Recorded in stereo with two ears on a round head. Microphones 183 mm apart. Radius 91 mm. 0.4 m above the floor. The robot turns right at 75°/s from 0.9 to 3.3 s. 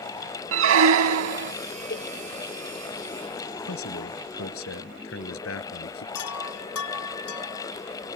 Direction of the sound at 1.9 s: 45° left (ahead or behind).